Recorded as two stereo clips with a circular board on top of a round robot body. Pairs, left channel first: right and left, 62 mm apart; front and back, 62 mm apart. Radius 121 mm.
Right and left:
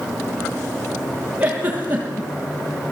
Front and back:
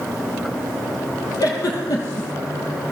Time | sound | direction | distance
1.4 | a giggle | 25° left | 6 m